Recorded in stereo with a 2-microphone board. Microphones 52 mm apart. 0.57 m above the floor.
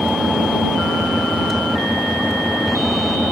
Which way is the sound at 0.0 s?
5° right (ahead or behind).